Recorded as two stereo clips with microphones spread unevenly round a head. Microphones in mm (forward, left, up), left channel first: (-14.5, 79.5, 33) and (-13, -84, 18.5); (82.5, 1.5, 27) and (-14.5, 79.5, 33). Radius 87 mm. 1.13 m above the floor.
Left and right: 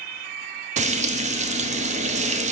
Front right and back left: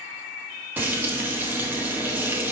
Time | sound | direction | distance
0.8 | frying | 140° right | 0.7 m